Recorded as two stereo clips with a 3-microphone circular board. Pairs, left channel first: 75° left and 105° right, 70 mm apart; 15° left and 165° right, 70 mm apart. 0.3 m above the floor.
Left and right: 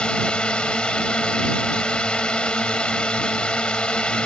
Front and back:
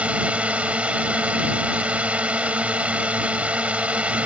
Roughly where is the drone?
Behind left.